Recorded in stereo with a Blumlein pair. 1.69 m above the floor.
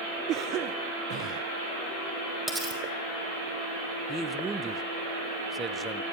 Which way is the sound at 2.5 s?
Straight ahead.